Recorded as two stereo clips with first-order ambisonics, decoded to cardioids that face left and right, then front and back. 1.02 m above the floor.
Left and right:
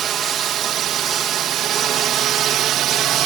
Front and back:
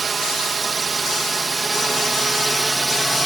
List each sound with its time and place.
0.0 s a drone: 125° right; by 3.3 s 95° right